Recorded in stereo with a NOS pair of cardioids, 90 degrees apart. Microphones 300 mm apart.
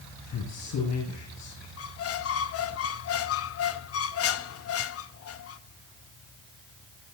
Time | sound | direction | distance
0.3 | a man speaking | 65° left | 9 m
1.8 | a squeak | 50° left | 0.9 m